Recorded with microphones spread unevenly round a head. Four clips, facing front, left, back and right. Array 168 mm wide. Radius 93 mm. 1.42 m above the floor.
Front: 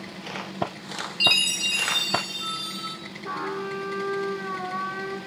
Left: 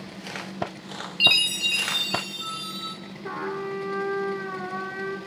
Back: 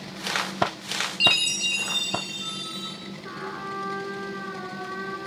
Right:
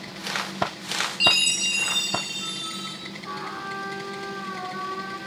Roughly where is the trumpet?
Left.